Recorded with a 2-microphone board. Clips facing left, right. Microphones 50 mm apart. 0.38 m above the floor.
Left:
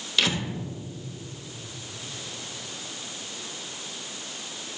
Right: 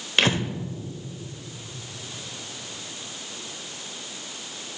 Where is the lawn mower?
I don't hear a lawn mower.